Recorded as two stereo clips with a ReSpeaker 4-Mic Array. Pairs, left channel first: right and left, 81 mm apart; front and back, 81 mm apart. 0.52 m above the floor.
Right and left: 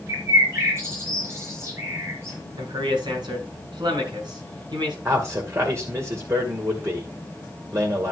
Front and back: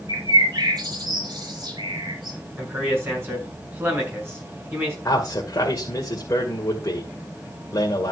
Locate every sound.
0.1 s a bird: 145° left, 4.5 m
2.6 s a man speaking: 120° left, 5.5 m
5.0 s a man speaking: 40° left, 2 m